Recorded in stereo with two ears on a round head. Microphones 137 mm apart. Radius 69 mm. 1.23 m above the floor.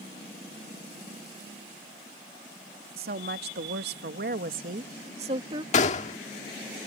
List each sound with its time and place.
3.0 s a woman speaking: 70° right (ahead or behind); by 5.6 s 30° right (ahead or behind)
5.7 s a gunshot: 50° left (ahead or behind)